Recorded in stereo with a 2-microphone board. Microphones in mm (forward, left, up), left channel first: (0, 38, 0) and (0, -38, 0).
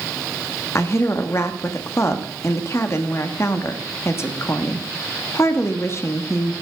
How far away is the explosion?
No explosion in this recording.